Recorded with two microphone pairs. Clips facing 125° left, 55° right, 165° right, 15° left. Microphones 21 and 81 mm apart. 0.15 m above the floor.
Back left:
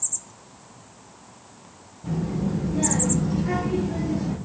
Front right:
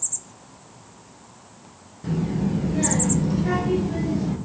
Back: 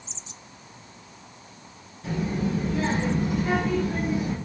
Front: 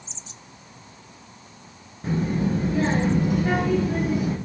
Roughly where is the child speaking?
Ahead right.